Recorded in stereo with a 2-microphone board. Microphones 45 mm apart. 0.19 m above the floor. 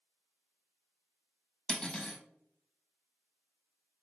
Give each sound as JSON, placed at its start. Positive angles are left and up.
{"t": 1.7, "sound": "cutlery clinking", "side_deg": 20, "distance_m": 0.6}